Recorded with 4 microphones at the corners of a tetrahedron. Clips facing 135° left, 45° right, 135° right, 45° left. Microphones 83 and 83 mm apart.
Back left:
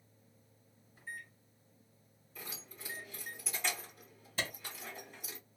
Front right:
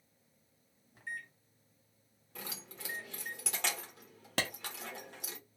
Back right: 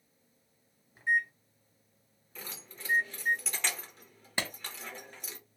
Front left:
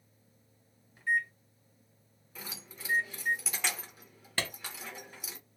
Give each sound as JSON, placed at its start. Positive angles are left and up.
{"t": 0.9, "sound": "a microwave", "azimuth_deg": -65, "distance_m": 1.6}
{"t": 2.4, "sound": "keys jangling", "azimuth_deg": -40, "distance_m": 1.1}
{"t": 4.4, "sound": "a clap", "azimuth_deg": -60, "distance_m": 1.0}